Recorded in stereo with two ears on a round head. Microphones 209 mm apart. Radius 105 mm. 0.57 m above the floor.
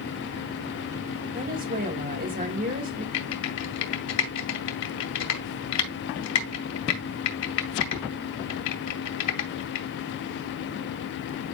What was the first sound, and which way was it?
A woman speaking, 40° right (ahead or behind).